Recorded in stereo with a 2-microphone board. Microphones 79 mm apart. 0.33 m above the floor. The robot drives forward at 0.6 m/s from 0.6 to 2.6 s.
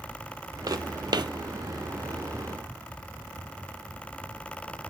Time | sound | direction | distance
0.7 | footsteps | 50° right (ahead or behind) | 0.7 m